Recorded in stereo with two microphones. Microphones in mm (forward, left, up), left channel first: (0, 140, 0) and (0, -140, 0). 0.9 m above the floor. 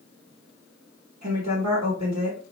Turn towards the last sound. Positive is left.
turn(degrees=-60)  # may be behind; listen again after turning